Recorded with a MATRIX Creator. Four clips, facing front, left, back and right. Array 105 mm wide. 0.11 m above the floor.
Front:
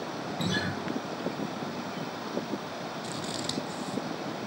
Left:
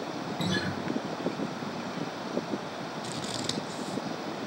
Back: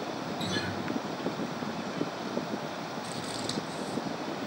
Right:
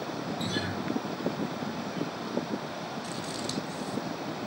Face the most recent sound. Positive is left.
turn(degrees=70)